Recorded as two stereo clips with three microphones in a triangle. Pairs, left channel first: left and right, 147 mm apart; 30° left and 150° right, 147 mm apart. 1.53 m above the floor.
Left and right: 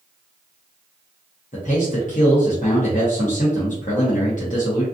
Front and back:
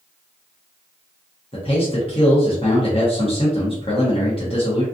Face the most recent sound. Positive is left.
turn(degrees=75)